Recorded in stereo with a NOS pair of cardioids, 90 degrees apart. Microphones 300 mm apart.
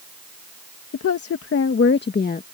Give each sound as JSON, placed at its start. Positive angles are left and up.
{"t": 0.9, "sound": "a woman speaking", "azimuth_deg": 55}